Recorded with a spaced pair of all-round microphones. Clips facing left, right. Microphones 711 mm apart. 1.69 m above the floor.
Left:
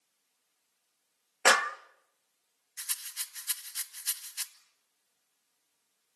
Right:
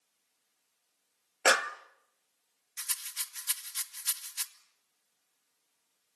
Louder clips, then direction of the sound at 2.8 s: Right 2 dB; 40° right (ahead or behind).